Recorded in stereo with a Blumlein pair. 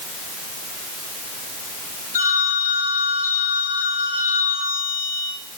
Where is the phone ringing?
55° left, 3 m.